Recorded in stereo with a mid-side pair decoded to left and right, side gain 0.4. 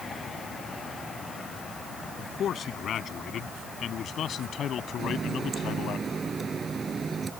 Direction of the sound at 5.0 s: 35° right.